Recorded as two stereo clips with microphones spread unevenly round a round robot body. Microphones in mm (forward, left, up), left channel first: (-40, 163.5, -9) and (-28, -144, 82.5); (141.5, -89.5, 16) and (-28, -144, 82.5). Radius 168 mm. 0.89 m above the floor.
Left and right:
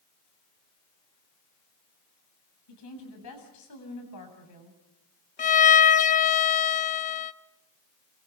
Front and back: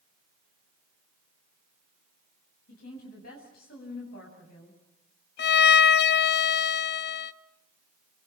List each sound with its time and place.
2.7 s a woman speaking: 60° left, 7.5 m
5.4 s a violin: 30° left, 0.6 m